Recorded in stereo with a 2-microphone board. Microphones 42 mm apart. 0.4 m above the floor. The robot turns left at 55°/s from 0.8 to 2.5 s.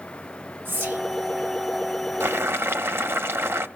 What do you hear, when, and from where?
0.7 s whispering: 55° right (ahead or behind), 2 m; by 1.0 s 60° right (ahead or behind), 2 m
2.2 s boiling: 65° right (ahead or behind), 0.8 m; by 3.7 s 75° right (ahead or behind), 0.8 m